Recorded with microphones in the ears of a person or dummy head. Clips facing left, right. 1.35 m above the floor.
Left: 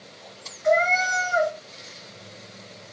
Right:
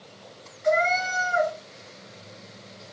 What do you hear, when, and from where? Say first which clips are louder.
0.6 s a cat meowing: left 2 dB; 10° right (ahead or behind), 0.9 m